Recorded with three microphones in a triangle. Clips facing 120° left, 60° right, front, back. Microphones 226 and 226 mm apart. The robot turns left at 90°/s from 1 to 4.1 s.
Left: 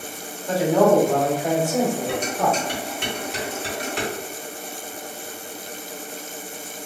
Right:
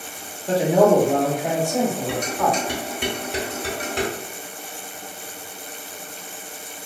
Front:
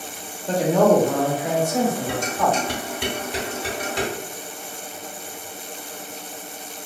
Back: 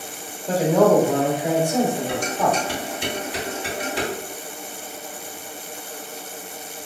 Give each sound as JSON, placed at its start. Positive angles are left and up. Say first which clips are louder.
{"t": 0.5, "sound": "a man speaking", "louder": "right 1 dB, back 1 dB", "azimuth_deg": -95, "distance_m": 0.8}
{"t": 2.1, "sound": "dishes clattering", "louder": "even, even", "azimuth_deg": 75, "distance_m": 1.2}